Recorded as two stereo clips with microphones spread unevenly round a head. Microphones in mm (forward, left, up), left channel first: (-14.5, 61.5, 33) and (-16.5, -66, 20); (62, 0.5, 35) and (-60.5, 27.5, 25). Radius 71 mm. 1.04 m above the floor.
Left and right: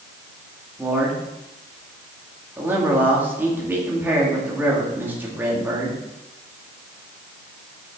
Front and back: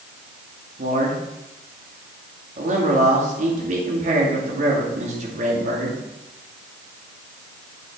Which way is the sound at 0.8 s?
165° right.